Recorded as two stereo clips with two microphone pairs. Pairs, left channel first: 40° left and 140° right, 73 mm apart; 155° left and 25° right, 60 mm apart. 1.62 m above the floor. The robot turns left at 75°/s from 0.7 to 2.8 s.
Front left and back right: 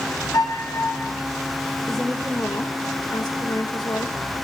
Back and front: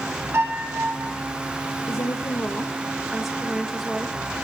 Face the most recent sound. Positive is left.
turn(degrees=60)